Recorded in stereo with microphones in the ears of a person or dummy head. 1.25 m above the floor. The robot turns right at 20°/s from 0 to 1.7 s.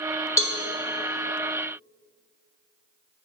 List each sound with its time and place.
0.4 s a cowbell: 20° left (ahead or behind), 1.5 m; by 0.6 s 25° left (ahead or behind), 1.5 m